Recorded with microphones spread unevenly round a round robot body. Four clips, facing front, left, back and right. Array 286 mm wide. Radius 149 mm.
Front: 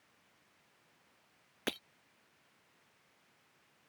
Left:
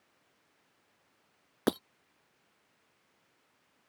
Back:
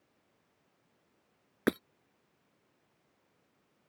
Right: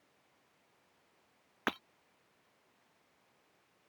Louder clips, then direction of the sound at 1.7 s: Left 8 dB, back 10 dB; 140° left.